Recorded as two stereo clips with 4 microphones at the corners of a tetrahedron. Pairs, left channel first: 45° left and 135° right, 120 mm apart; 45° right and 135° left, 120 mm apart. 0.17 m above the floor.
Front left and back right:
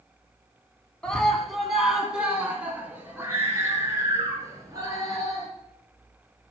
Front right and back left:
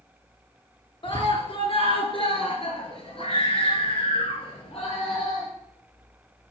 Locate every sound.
1.0 s a scream: 35° right, 2.0 m; by 5.5 s 80° right, 3.5 m